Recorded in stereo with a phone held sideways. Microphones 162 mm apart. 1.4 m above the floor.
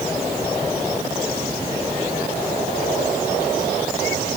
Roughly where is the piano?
I don't hear a piano.